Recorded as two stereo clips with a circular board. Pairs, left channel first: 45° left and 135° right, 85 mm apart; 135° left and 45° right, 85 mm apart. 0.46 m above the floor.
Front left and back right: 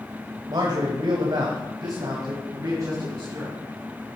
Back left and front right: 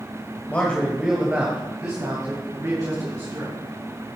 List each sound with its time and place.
0.5 s a man speaking: 160° right, 1.6 m; by 3.6 s 80° right, 4 m